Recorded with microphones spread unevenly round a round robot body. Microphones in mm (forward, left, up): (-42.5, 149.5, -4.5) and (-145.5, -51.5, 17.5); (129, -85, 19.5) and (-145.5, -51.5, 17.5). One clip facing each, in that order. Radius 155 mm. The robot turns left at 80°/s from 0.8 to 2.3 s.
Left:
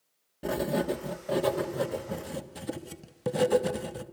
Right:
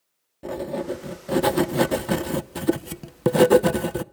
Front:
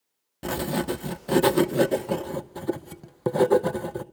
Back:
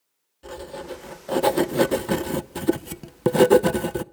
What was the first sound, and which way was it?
Writing, 20° right.